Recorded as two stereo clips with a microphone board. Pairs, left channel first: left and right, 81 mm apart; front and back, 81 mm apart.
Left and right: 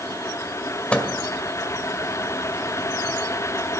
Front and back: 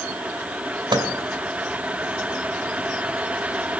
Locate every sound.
0.9 s a microwave: 165° left, 1.8 m